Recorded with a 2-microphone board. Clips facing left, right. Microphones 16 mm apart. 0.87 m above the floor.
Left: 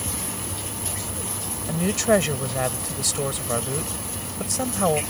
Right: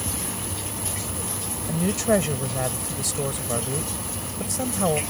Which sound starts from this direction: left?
A woman speaking, at 1.7 s.